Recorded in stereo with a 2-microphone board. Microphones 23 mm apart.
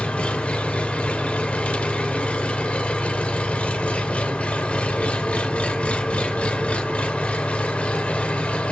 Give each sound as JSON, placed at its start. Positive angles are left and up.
{"t": 0.0, "sound": "an engine running", "side_deg": 60, "distance_m": 0.7}